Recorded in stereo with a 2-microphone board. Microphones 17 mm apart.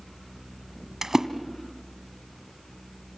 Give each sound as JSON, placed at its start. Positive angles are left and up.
{"t": 1.0, "sound": "a splash", "side_deg": -30, "distance_m": 1.5}